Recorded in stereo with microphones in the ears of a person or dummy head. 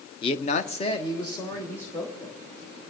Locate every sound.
0.2 s a man speaking: 25° left (ahead or behind), 0.7 m; by 2.4 s 10° left (ahead or behind), 2.5 m